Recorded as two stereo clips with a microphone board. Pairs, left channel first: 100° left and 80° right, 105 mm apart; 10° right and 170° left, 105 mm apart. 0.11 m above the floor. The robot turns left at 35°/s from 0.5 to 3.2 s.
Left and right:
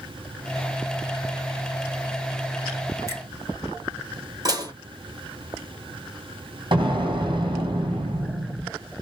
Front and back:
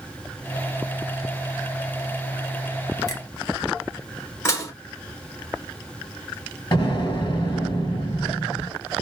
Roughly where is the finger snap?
Ahead right.